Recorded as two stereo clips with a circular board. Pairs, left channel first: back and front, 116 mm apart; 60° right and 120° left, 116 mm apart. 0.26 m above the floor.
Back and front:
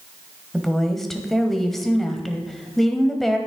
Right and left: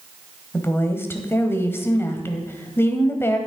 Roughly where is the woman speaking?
Right.